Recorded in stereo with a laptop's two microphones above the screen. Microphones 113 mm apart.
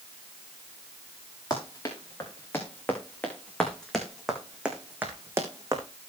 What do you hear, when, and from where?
1.5 s running footsteps: 30° left (ahead or behind), 6 m; by 5.8 s 30° right (ahead or behind), 3.5 m